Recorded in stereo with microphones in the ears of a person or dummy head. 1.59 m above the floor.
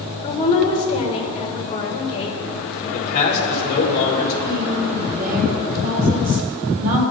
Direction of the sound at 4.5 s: 45° right (ahead or behind).